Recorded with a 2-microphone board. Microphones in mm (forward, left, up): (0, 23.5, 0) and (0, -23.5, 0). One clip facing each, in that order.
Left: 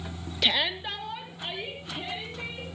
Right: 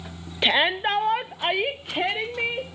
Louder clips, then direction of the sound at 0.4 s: Right 7 dB; 25° right (ahead or behind).